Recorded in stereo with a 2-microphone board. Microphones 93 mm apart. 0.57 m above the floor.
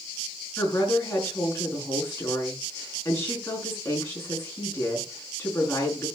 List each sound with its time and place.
0.6 s a woman speaking: 30° left (ahead or behind), 5.5 m